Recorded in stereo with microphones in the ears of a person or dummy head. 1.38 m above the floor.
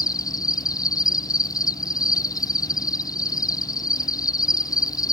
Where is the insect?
20° left (ahead or behind).